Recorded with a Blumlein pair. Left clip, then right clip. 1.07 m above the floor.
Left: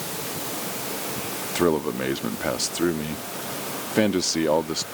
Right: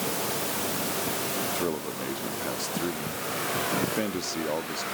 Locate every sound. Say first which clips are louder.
1.6 s a man speaking: left 8 dB; 65° left